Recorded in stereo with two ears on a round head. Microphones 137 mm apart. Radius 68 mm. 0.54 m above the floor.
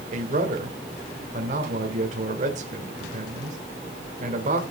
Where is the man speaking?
50° right (ahead or behind), 1.5 m.